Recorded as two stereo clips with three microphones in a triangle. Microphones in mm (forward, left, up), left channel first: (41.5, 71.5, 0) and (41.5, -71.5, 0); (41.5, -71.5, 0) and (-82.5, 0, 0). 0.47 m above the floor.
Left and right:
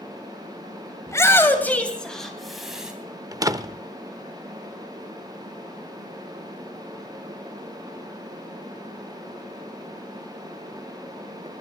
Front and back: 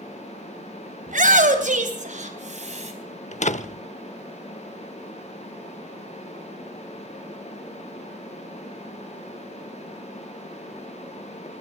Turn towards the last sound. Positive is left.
turn(degrees=-30)